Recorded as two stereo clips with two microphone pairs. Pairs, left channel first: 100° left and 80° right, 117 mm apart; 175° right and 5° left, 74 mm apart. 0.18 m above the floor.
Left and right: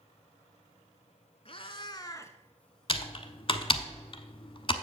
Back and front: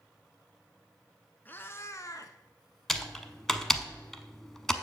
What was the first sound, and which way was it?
A cat meowing, 125° left.